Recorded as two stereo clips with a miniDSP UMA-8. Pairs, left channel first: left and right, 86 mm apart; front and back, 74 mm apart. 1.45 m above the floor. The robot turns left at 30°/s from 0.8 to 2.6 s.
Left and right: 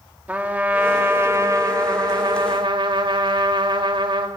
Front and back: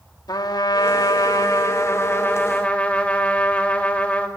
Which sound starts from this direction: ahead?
A trumpet, at 0.3 s.